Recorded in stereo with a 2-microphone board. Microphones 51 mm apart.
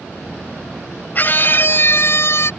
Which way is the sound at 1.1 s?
35° left (ahead or behind).